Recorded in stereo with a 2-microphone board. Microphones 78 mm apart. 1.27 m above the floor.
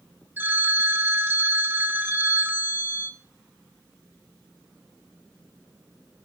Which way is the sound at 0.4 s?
25° right (ahead or behind).